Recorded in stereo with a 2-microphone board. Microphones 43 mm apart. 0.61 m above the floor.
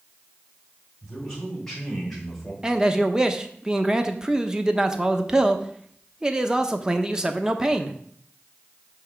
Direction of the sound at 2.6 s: 15° right (ahead or behind).